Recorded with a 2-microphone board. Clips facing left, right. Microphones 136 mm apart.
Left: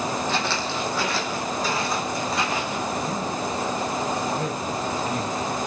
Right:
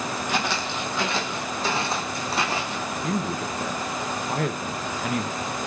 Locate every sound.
0.3 s footsteps: 15° right (ahead or behind), 2.5 m; by 2.9 s 35° right (ahead or behind), 3.5 m
3.0 s a man speaking: 80° right, 1.2 m